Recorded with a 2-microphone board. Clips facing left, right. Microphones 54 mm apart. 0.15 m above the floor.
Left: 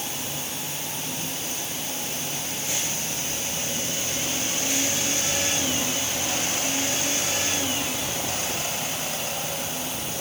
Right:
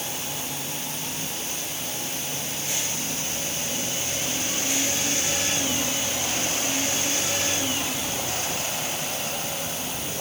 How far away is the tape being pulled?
No tape being pulled in this recording.